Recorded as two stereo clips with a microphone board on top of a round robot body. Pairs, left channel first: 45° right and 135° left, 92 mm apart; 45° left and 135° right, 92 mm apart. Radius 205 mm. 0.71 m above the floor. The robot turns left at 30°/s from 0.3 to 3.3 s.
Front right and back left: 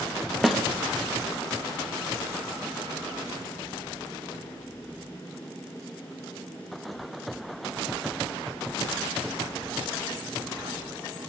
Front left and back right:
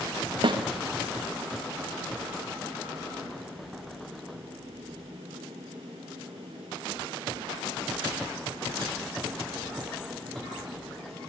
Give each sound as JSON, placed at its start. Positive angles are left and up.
{"t": 0.4, "sound": "a snare drum", "azimuth_deg": -135, "distance_m": 1.8}